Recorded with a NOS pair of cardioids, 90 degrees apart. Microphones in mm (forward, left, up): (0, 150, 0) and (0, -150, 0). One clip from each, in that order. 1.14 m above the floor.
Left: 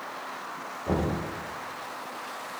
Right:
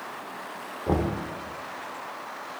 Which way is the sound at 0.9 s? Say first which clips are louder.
Right 2 dB; 15° right.